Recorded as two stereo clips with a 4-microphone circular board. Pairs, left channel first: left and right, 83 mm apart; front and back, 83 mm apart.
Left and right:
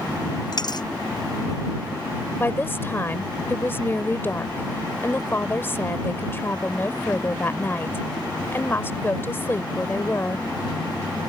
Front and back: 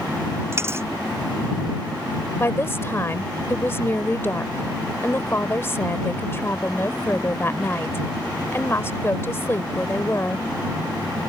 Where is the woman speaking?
45° left.